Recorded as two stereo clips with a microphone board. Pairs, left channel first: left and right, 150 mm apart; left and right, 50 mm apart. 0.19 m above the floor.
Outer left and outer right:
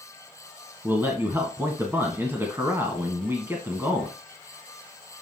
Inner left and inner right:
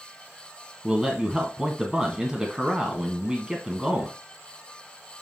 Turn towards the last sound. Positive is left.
turn(degrees=-15)  # may be behind; listen again after turning